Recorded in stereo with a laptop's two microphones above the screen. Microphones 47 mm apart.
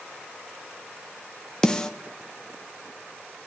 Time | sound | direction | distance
1.6 | a snare drum | 15° left (ahead or behind) | 0.6 m